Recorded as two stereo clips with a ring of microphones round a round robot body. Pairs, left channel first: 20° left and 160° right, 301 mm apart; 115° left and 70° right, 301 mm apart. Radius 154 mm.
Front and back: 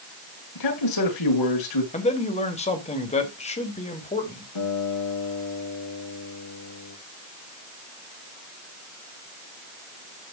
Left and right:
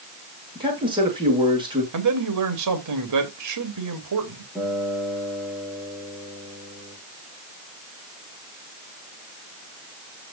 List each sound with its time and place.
0.6 s a man speaking: 5° left, 7 m
1.9 s a man speaking: 45° right, 3 m
4.5 s a guitar: 20° left, 7 m